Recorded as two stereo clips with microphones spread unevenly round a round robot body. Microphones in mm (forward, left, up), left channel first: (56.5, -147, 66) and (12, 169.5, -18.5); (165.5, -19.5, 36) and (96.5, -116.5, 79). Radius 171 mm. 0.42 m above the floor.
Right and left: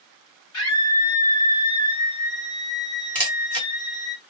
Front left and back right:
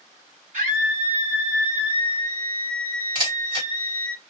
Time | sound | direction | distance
0.5 | a scream | 135° right | 1.7 m
3.1 | a camera shutter | 175° left | 1.5 m